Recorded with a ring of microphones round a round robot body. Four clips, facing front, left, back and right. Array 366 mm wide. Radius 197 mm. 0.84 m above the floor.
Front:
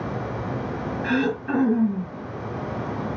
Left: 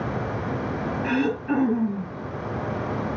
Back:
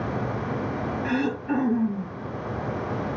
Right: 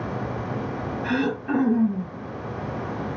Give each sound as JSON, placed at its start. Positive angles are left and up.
{"t": 1.0, "sound": "throat clearing", "azimuth_deg": -40, "distance_m": 4.0}